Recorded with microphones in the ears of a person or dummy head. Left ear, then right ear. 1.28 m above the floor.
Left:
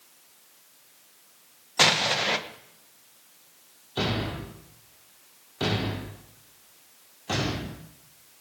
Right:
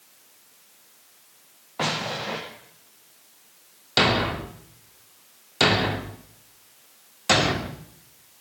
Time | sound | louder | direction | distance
1.8 | an explosion | left 6 dB | 70° left (ahead or behind) | 1.4 m
4.0 | a thud | right 9 dB | 45° right (ahead or behind) | 1.0 m